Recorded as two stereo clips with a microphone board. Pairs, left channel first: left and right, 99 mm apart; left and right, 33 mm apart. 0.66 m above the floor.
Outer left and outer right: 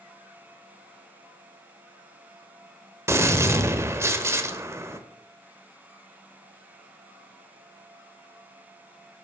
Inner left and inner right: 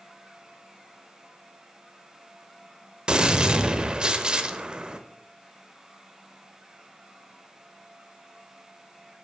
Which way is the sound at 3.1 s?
25° right (ahead or behind).